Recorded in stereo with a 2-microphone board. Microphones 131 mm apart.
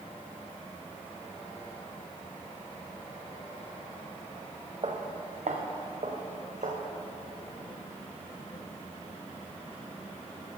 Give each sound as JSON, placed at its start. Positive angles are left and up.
{"t": 4.8, "sound": "footsteps", "side_deg": -55, "distance_m": 1.5}